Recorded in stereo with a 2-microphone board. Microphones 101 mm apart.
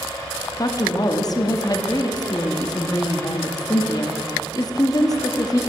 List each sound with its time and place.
0.6 s a woman speaking: 40° left (ahead or behind), 0.7 m